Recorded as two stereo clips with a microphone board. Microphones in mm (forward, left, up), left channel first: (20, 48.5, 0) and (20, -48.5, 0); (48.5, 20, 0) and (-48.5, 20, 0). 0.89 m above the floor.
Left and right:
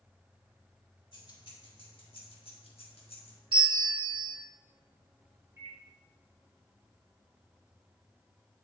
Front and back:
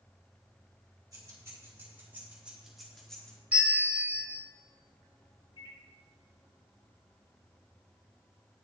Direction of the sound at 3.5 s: 105° right.